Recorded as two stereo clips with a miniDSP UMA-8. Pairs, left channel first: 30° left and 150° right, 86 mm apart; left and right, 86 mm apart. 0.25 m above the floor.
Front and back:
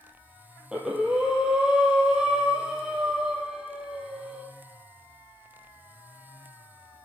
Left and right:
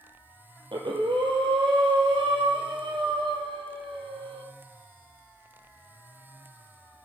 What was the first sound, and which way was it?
Breathing, 70° right.